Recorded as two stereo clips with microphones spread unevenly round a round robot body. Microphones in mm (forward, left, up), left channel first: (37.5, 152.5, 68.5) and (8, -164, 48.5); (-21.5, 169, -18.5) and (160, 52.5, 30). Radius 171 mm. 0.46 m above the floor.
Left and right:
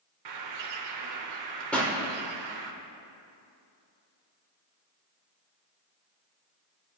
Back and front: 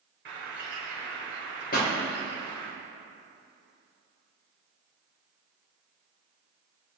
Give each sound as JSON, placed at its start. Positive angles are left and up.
{"t": 0.2, "sound": "a bird", "azimuth_deg": -95, "distance_m": 1.1}
{"t": 1.7, "sound": "a pop", "azimuth_deg": 175, "distance_m": 1.5}